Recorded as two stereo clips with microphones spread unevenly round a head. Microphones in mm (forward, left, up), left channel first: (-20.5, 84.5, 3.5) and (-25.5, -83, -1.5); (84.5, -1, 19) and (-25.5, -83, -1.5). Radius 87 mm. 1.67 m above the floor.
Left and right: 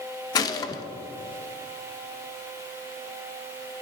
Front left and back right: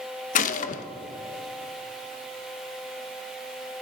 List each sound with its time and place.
0.3 s a gunshot: 20° left, 0.6 m